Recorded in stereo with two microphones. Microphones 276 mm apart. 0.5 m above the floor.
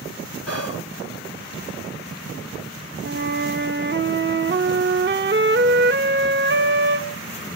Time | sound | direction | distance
0.5 | whispering | 60° left (ahead or behind) | 2.5 m
3.0 | a flute | 40° right (ahead or behind) | 0.9 m